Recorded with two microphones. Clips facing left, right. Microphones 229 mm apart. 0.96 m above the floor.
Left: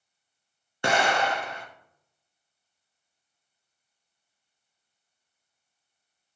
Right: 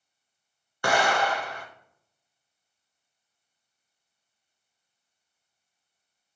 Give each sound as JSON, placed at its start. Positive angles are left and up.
{"t": 0.8, "sound": "an explosion", "side_deg": 25, "distance_m": 0.8}